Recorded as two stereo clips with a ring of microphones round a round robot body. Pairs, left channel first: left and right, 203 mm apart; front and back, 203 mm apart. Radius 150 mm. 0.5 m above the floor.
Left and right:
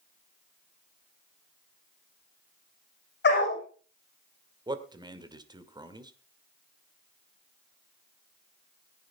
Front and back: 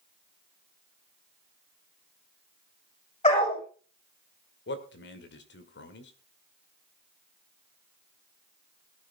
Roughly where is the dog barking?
Ahead left.